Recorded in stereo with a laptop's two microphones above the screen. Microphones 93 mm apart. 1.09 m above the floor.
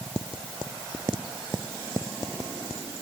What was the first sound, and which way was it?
Only background noise.